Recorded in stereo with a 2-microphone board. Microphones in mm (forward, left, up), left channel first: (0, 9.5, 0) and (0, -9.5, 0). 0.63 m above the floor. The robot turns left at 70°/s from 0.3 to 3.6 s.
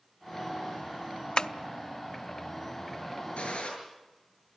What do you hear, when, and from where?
1.4 s tapping: 50° left (ahead or behind), 0.7 m
3.4 s a gunshot: 80° left, 7.5 m